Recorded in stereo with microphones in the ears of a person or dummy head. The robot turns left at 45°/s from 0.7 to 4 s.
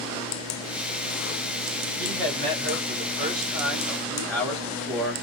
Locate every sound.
2.0 s a man speaking: 95° right, 2 m; by 5.1 s 175° left, 2 m